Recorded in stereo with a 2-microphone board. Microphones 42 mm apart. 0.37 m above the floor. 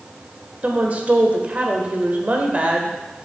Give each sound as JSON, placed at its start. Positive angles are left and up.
{"t": 0.6, "sound": "a woman speaking", "side_deg": -35, "distance_m": 1.0}